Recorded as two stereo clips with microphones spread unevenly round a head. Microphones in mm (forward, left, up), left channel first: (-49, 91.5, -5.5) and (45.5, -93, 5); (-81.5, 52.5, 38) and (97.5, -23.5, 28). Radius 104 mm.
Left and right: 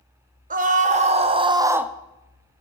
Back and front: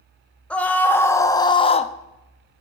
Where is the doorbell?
No doorbell in this recording.